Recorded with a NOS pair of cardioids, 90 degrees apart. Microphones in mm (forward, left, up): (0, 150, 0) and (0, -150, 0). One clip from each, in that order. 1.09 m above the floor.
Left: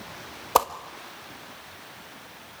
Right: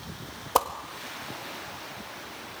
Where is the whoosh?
20° left, 1.5 m.